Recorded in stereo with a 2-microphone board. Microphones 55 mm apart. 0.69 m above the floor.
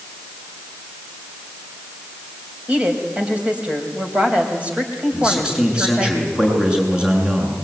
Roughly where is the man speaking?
Centre.